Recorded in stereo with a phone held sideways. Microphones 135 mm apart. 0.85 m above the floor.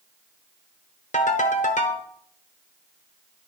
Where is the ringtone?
70° left (ahead or behind), 1.1 m.